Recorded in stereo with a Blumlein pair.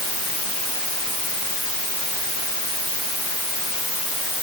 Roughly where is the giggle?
I don't hear a giggle.